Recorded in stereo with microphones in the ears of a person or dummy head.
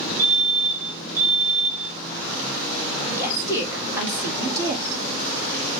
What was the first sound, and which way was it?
A fire alarm, 10° right (ahead or behind).